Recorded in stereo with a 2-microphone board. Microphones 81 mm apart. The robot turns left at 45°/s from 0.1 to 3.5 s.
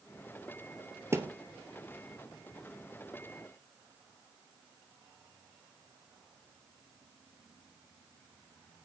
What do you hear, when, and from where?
1.1 s a thud: 30° right (ahead or behind), 1.1 m; by 1.3 s 35° right (ahead or behind), 1.1 m